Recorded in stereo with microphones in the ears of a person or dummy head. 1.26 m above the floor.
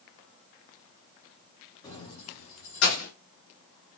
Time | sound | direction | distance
1.8 | keys jangling | 20° left (ahead or behind) | 0.9 m